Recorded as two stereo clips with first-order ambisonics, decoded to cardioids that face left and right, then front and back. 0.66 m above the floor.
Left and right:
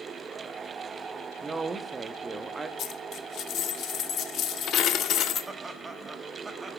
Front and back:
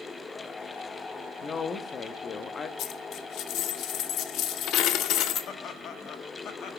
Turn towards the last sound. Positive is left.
turn(degrees=-10)